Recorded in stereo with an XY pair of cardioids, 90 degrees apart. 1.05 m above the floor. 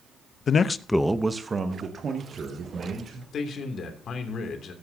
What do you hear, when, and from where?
0.5 s a man speaking: 60° left, 0.8 m; by 3.2 s 60° right, 3 m
3.3 s a man speaking: 60° left, 2.5 m